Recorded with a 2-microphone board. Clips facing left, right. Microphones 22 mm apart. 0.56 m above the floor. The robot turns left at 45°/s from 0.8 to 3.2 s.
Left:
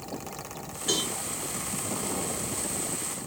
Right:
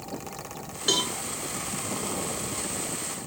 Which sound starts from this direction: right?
A cowbell, at 0.9 s.